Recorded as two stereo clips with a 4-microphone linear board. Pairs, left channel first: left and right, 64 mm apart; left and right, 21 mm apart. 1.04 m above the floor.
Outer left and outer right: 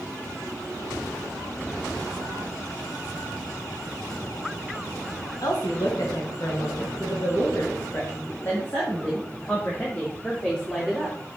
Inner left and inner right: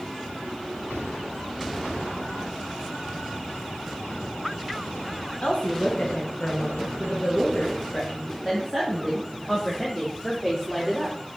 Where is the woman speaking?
65° left (ahead or behind), 1.6 m; by 11.2 s 15° left (ahead or behind), 3.5 m.